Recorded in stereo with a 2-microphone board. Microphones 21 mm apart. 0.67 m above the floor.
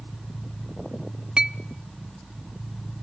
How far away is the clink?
About 0.7 m.